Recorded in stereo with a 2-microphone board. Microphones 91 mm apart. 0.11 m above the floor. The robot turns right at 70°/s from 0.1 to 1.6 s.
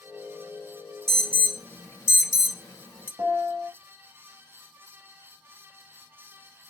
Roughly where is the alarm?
Centre.